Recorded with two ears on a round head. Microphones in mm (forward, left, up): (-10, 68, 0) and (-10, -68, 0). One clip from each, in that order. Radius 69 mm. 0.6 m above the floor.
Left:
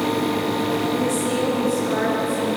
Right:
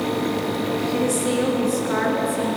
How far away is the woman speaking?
About 7.5 m.